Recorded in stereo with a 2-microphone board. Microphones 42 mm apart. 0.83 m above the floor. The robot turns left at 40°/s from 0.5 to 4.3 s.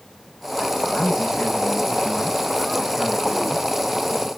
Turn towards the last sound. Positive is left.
turn(degrees=-80)